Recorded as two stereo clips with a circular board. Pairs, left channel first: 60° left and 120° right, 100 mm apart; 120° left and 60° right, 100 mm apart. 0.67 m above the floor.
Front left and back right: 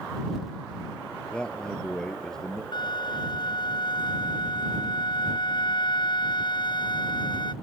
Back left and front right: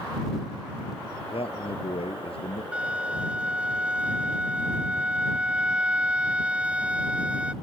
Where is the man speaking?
140° left; by 2.6 s 145° left.